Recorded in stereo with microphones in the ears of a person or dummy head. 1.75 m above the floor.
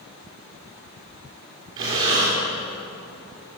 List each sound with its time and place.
1.8 s breathing: 20° right (ahead or behind), 1.4 m